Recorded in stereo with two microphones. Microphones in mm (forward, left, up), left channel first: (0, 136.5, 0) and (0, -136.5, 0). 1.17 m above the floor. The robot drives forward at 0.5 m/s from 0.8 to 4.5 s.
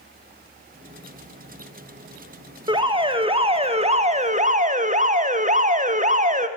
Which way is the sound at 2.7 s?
15° right (ahead or behind).